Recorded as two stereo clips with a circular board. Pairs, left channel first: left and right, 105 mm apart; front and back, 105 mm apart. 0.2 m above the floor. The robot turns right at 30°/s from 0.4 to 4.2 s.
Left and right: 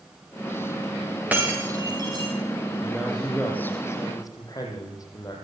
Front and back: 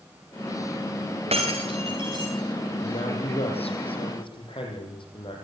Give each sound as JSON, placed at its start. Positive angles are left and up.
{"t": 1.3, "sound": "breaking glass", "azimuth_deg": -165, "distance_m": 6.5}
{"t": 2.8, "sound": "a man speaking", "azimuth_deg": -5, "distance_m": 7.0}